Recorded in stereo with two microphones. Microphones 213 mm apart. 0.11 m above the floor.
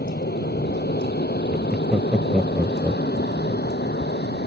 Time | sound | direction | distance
0.0 | an aircraft | 50° left (ahead or behind) | ?
1.5 | laughter | centre (ahead or behind) | ?